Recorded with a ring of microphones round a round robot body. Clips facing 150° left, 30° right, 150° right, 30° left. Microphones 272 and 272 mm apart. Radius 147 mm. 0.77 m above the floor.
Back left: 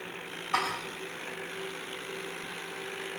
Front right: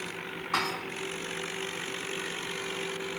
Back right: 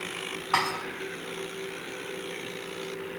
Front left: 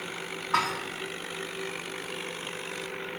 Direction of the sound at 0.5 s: 115° right.